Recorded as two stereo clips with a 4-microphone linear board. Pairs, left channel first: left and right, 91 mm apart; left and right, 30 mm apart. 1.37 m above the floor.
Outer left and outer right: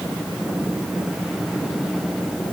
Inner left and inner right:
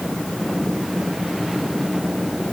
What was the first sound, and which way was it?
Only background noise.